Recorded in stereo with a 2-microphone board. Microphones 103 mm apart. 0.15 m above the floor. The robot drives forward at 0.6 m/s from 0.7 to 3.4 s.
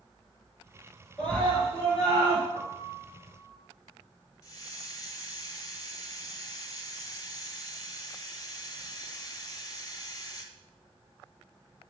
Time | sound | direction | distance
1.2 | a scream | 15° left (ahead or behind) | 2.5 m
2.5 | a piano | 10° left (ahead or behind) | 3 m
4.4 | a hiss | 35° left (ahead or behind) | 1.0 m